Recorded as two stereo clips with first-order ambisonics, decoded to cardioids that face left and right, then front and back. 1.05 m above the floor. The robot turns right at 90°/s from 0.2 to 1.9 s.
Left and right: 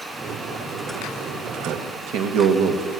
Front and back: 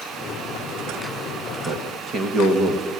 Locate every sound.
1.6 s a man speaking: 145° right, 1.7 m; by 2.9 s 120° right, 1.7 m